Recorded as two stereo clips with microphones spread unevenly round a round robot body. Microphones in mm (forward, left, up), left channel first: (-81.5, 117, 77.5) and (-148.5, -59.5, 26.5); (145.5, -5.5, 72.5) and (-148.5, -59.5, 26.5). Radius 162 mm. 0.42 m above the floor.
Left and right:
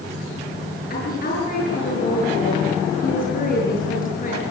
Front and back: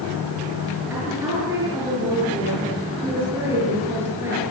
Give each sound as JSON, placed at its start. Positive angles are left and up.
{"t": 0.9, "sound": "a woman speaking", "azimuth_deg": 110, "distance_m": 7.5}